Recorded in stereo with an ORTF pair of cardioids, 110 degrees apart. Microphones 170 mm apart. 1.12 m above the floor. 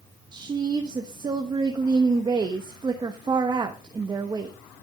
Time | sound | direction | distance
0.3 | a woman speaking | 25° right | 1.1 m